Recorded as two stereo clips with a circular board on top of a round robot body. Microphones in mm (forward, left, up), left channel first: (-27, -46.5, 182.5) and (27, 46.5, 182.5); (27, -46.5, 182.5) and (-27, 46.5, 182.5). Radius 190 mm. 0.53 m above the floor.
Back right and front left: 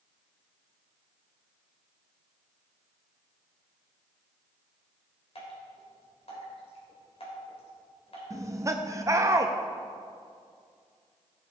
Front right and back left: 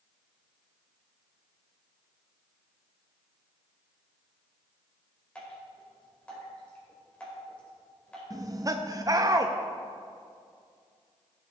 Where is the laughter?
95° left, 0.9 m.